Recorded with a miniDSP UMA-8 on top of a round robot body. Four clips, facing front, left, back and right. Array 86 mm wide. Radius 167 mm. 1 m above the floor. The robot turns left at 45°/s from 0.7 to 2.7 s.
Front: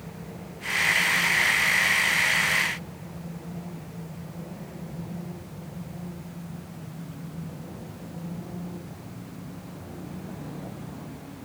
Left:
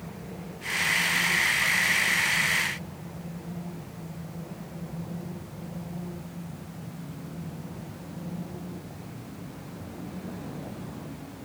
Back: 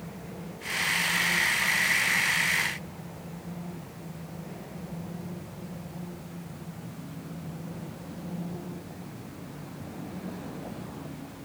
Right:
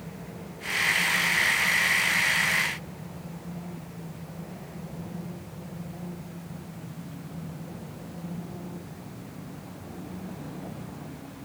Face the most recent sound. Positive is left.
No sound to turn to.